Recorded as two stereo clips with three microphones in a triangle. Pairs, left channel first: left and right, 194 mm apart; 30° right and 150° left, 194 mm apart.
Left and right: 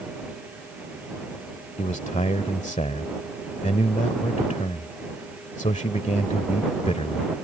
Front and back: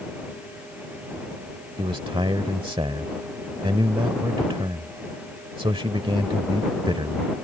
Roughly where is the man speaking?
Left.